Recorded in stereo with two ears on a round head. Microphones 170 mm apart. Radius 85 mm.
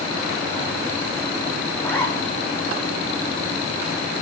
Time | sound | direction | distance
1.8 | a zipper | 15° left (ahead or behind) | 5 m